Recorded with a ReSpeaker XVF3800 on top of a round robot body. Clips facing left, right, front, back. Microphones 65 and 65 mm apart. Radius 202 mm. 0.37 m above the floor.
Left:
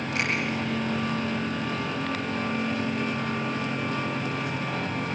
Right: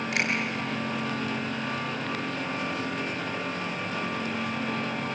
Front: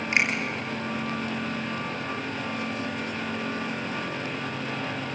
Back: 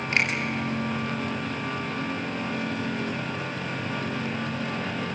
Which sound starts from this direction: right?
A finger snap, at 0.1 s.